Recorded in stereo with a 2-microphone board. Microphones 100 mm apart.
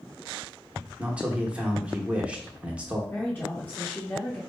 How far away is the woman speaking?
About 1.0 m.